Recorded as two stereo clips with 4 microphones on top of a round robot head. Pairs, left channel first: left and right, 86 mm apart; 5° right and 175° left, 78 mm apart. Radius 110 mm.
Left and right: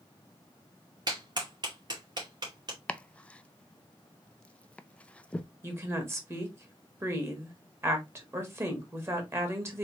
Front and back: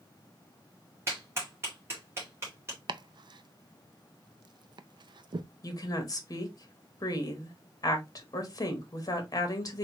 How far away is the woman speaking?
About 1.5 m.